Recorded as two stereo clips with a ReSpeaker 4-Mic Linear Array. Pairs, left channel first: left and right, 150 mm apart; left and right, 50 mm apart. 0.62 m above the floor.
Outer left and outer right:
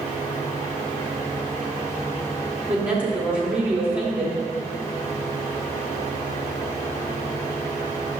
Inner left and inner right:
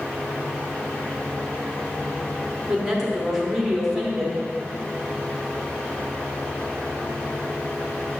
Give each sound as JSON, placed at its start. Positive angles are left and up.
{"t": 2.7, "sound": "a woman speaking", "side_deg": -10, "distance_m": 1.4}